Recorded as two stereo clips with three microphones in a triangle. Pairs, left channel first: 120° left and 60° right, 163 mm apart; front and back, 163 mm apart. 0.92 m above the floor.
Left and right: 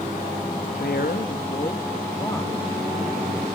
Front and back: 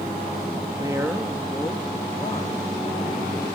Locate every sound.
0.7 s a woman speaking: 125° left, 1.0 m; by 3.5 s 30° left, 2.5 m